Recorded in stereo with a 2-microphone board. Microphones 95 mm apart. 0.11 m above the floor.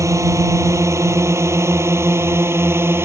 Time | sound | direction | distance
0.0 | a drone | 30° right (ahead or behind) | ?